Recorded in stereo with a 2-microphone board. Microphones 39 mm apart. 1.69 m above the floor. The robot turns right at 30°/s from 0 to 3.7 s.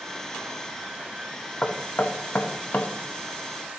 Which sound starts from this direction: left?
Knocking, at 1.6 s.